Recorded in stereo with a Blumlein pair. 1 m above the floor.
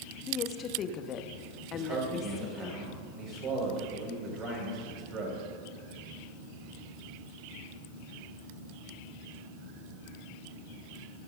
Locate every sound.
0.3 s a woman speaking: 30° left, 1.1 m
1.7 s a man speaking: 30° right, 5.5 m